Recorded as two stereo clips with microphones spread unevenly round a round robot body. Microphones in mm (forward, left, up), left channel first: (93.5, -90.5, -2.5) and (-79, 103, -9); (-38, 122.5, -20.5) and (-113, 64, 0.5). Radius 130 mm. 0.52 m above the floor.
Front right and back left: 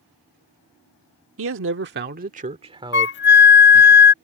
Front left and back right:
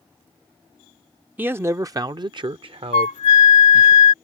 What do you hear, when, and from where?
1.4 s a man speaking: 140° left; by 3.9 s 140° right
2.9 s a flute: straight ahead